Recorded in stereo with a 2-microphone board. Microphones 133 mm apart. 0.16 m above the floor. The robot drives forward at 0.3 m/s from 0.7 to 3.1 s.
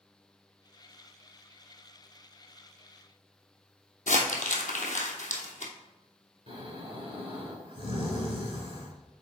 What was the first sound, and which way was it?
Crumpling, 75° left (ahead or behind).